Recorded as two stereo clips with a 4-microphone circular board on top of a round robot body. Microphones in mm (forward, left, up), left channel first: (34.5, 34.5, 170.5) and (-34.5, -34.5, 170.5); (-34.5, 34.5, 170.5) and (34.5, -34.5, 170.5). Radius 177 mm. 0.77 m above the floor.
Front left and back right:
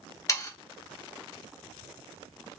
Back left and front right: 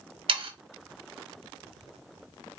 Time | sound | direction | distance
0.3 | sawing | 15° right | 0.9 m